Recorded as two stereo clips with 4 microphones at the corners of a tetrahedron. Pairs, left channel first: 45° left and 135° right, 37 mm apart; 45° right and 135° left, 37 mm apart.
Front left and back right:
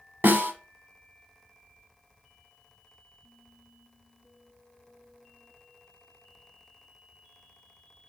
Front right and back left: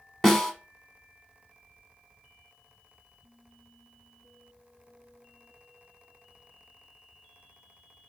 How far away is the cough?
I don't hear a cough.